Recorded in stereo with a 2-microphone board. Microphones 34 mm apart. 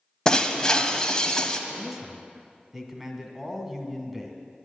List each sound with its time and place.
0.2 s breaking glass: 20° left (ahead or behind), 0.9 m
1.7 s a man speaking: 5° right (ahead or behind), 1.6 m